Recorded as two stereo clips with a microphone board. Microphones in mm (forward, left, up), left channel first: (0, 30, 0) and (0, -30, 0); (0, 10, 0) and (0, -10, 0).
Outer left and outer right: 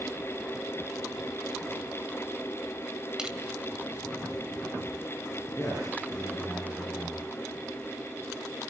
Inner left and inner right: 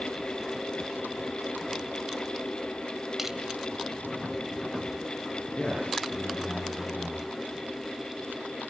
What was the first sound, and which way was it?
Crushing, 10° right (ahead or behind).